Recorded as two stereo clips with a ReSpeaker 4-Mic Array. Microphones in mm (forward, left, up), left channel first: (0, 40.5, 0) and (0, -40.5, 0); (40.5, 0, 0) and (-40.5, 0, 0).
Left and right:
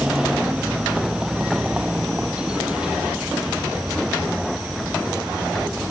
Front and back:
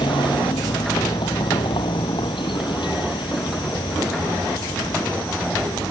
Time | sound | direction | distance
0.0 | a vehicle | 10° right | ?